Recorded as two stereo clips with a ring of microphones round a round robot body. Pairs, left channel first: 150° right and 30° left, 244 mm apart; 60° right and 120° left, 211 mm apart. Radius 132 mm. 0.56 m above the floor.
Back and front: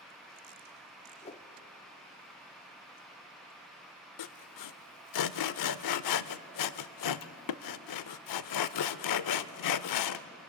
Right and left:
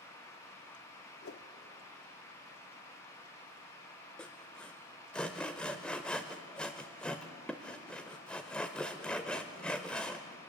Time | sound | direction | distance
1.2 | a whoosh | 90° right | 0.9 m
4.2 | sawing | 145° right | 0.5 m